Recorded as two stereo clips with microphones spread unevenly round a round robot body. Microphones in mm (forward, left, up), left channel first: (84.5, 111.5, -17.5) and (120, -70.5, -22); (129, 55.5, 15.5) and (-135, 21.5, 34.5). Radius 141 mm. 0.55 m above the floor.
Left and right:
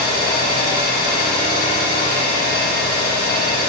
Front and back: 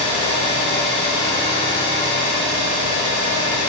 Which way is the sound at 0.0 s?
70° left.